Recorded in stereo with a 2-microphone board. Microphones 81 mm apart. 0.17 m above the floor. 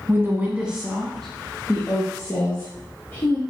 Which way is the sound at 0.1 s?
30° right (ahead or behind).